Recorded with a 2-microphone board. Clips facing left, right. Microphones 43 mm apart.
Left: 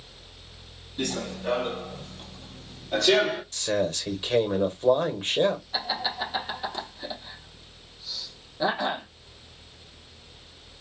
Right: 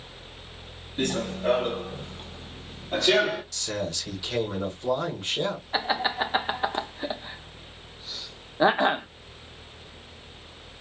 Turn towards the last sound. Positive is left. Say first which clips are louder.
# right 4 dB
turn(degrees=-40)  # may be behind; listen again after turning